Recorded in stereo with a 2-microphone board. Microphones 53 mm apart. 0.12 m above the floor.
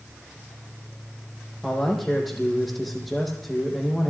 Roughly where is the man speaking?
Centre.